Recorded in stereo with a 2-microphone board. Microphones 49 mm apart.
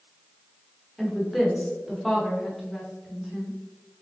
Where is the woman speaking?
Centre (ahead or behind), 1.0 m.